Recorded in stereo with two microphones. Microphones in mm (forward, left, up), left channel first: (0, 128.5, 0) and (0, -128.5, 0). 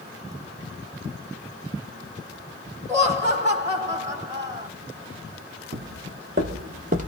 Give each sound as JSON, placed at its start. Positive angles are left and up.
{"t": 2.9, "sound": "laughter", "side_deg": -15, "distance_m": 0.9}
{"t": 5.7, "sound": "footsteps", "side_deg": -55, "distance_m": 1.5}